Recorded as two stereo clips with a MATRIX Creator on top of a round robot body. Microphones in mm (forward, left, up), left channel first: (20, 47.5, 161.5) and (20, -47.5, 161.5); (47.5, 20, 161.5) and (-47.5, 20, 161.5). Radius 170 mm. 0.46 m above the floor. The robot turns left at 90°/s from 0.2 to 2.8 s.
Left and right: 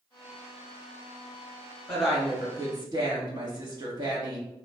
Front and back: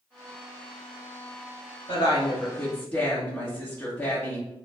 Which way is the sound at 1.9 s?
10° left.